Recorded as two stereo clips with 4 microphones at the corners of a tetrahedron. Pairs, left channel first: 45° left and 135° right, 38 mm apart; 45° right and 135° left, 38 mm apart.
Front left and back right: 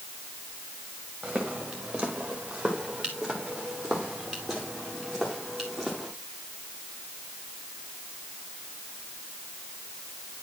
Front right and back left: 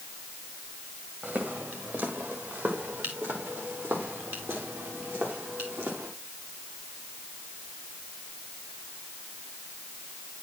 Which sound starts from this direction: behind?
Footsteps, at 1.2 s.